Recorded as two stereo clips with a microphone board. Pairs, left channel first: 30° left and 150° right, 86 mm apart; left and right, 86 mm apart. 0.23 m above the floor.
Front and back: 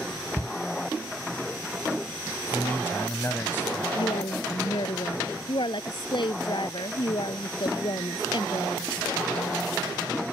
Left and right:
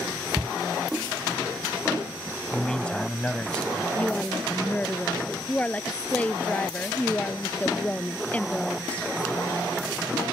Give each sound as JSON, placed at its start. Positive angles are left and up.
{"t": 0.4, "sound": "a shout", "azimuth_deg": -5}
{"t": 2.5, "sound": "a man speaking", "azimuth_deg": 30}
{"t": 4.0, "sound": "a woman speaking", "azimuth_deg": 15}